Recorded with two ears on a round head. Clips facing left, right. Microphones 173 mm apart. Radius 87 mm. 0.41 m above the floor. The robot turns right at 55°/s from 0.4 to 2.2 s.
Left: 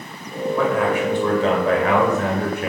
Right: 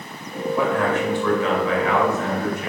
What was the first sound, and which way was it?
A man speaking, 10° right.